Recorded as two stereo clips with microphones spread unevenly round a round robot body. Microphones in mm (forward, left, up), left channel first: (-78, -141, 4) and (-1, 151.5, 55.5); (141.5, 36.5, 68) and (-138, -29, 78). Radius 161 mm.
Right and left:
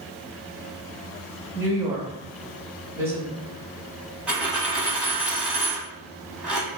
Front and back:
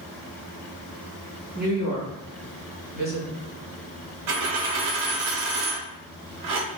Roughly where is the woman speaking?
Behind.